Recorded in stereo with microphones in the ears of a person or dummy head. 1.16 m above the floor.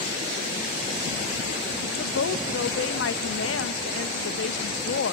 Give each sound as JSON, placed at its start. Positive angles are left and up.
{"t": 1.8, "sound": "a woman speaking", "side_deg": 70, "distance_m": 1.0}